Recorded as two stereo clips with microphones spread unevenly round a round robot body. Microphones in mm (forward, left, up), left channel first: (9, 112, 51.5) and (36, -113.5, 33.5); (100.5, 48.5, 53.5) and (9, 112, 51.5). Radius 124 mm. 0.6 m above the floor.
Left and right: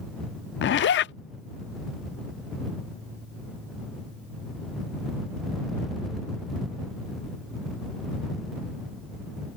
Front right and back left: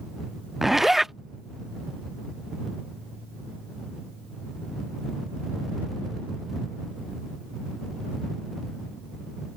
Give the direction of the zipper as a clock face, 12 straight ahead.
10 o'clock.